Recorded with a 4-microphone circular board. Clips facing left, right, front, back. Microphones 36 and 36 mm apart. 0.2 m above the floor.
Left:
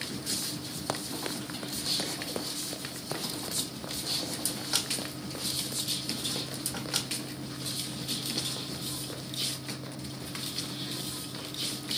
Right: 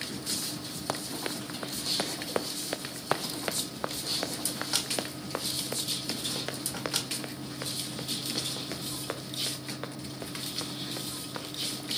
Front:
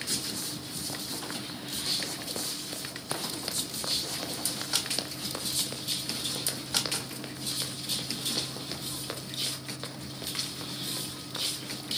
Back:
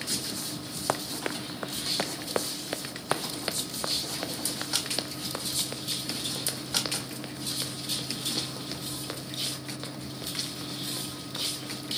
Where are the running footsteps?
Straight behind, 1.1 m; by 11.9 s 80° right, 5.5 m.